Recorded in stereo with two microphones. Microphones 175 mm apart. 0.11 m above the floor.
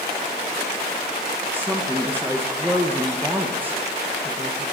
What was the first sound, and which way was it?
A woman speaking, 10° right (ahead or behind).